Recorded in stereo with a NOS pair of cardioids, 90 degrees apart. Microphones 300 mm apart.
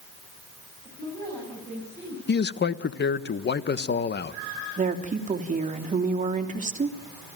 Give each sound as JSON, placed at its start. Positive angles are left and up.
{"t": 0.8, "sound": "a woman speaking", "azimuth_deg": 10, "distance_m": 9.5}
{"t": 2.3, "sound": "a man speaking", "azimuth_deg": 35, "distance_m": 1.2}
{"t": 4.8, "sound": "a woman speaking", "azimuth_deg": -25, "distance_m": 3.0}